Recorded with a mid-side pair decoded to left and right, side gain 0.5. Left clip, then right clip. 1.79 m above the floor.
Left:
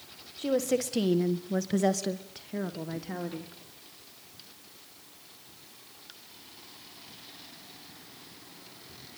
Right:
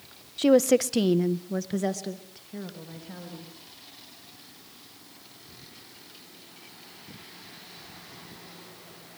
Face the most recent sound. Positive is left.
turn(degrees=50)